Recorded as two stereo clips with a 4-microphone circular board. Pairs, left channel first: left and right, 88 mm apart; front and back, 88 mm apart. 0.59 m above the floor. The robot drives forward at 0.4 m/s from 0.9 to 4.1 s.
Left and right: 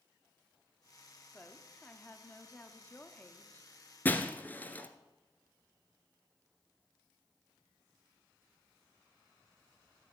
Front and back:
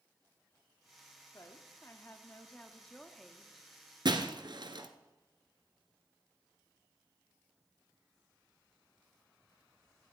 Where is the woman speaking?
25° left, 1.3 m; by 4.7 s 130° left, 1.1 m.